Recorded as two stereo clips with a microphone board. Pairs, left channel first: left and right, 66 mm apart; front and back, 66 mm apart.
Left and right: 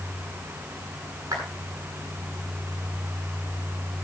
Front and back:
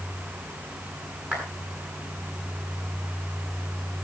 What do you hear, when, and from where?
1.3 s a clap: 120° right, 9 m